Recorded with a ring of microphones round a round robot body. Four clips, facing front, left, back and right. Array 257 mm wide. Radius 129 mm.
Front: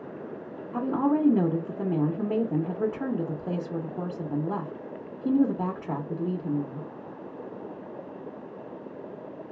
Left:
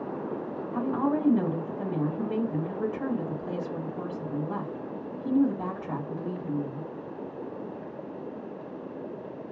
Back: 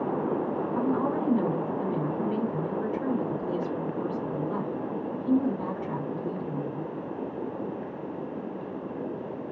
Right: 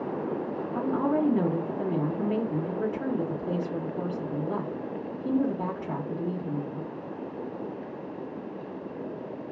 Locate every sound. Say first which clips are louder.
0.7 s a woman speaking: right 1 dB, front 4 dB; 15° right, 1.1 m